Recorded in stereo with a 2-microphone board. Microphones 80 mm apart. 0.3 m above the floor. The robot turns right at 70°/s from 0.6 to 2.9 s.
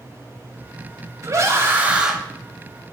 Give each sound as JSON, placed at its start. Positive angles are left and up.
{"t": 1.2, "sound": "a scream", "azimuth_deg": -75, "distance_m": 1.7}